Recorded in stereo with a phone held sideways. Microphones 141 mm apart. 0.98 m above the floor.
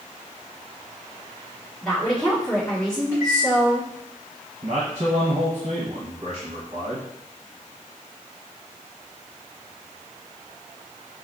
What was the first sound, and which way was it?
A woman speaking, 5° left (ahead or behind).